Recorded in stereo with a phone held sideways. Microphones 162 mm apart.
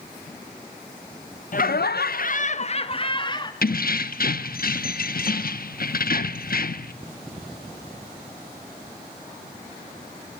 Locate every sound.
1.5 s laughter: 55° left (ahead or behind), 0.7 m; by 3.5 s 30° left (ahead or behind), 1.8 m
3.6 s keys jangling: 65° left (ahead or behind), 0.9 m